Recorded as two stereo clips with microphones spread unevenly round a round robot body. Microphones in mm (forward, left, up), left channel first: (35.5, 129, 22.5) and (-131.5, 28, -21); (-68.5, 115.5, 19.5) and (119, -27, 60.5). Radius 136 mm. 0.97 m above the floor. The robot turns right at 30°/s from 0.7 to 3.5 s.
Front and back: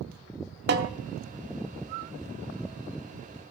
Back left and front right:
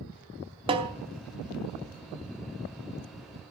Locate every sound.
0.7 s a snare drum: 100° right, 0.7 m; by 0.9 s 95° right, 0.7 m